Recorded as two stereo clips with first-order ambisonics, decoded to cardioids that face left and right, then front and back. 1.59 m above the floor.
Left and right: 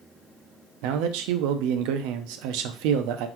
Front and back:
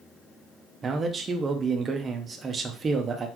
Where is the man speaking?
110° right, 0.7 m.